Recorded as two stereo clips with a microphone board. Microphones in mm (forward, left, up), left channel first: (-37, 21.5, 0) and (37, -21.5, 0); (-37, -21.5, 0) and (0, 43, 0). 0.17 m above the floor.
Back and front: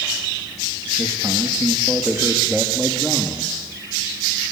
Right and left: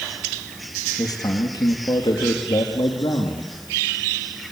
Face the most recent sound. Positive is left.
turn(degrees=-130)